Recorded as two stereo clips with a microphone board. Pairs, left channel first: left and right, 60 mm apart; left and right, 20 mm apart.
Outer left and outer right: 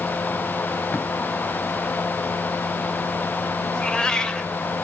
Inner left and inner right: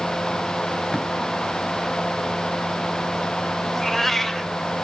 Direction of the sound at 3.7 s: 15° left (ahead or behind).